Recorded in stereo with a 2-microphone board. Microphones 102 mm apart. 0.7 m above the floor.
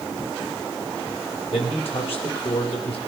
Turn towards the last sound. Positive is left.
turn(degrees=65)  # may be behind; listen again after turning